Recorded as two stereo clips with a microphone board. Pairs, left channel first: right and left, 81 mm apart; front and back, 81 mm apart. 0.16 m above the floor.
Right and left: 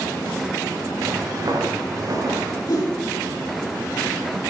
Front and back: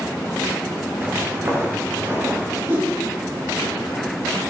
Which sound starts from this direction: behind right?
A whoosh, at 2.7 s.